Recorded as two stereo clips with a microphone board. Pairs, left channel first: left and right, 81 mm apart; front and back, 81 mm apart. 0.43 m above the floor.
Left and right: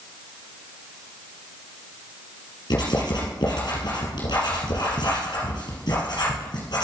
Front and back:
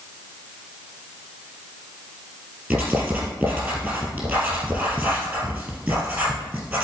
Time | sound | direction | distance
2.7 | writing | 105° left | 3 m